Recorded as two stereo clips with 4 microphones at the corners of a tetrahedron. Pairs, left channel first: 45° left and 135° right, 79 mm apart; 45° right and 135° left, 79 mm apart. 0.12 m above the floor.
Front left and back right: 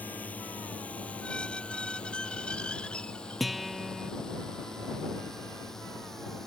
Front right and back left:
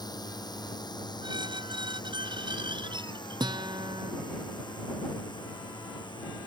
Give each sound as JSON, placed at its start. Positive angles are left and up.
{"t": 0.0, "sound": "a drone", "azimuth_deg": -25}
{"t": 1.2, "sound": "a squeak", "azimuth_deg": 120}
{"t": 3.4, "sound": "a guitar", "azimuth_deg": 135}